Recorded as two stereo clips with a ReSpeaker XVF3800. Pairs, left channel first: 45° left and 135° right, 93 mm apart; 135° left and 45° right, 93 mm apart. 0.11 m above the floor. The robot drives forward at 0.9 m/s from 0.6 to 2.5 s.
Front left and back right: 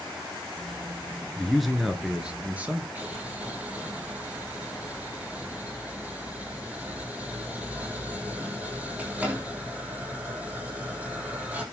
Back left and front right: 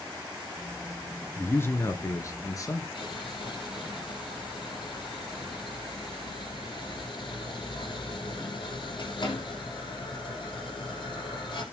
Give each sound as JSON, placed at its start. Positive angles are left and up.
{"t": 1.4, "sound": "a man speaking", "azimuth_deg": 120, "distance_m": 1.6}
{"t": 3.0, "sound": "boiling", "azimuth_deg": 155, "distance_m": 4.0}